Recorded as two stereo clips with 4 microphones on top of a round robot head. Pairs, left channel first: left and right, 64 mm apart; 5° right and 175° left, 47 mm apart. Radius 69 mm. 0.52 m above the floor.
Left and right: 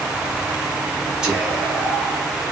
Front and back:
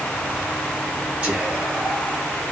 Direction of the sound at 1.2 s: 155° right.